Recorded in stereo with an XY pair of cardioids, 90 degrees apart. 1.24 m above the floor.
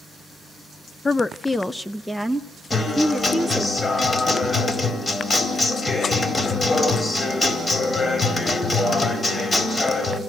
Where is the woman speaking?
30° left, 0.5 m; by 3.7 s 5° left, 2.0 m.